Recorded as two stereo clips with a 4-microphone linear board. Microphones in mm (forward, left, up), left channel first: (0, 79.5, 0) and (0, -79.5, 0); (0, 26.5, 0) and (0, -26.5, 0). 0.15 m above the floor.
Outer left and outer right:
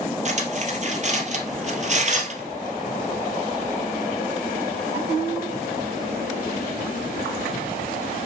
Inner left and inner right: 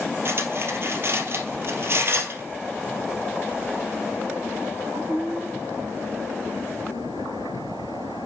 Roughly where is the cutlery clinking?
Right.